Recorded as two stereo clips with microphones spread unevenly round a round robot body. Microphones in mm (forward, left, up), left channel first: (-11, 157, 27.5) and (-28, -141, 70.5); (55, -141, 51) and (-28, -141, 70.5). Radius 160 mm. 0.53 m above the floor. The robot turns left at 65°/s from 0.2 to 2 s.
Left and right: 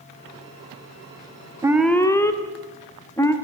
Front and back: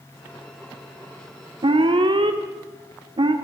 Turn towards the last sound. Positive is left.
turn(degrees=160)